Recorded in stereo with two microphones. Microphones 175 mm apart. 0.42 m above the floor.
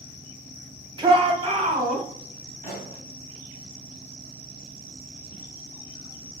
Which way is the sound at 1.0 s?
20° right (ahead or behind).